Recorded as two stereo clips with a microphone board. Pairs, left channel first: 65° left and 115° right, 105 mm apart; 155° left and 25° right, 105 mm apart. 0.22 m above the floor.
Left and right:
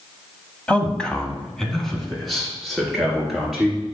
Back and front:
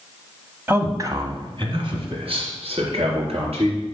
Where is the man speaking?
10° left, 1.0 m; by 3.8 s 25° right, 3.5 m.